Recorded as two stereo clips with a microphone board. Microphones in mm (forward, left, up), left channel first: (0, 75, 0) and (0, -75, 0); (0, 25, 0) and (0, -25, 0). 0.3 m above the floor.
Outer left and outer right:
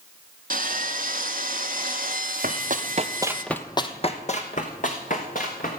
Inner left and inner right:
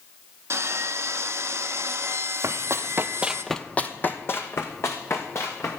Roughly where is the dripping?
No dripping in this recording.